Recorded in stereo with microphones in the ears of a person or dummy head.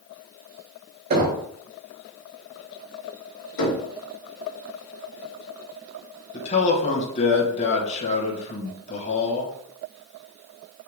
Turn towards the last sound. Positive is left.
turn(degrees=35)  # may be behind; listen again after turning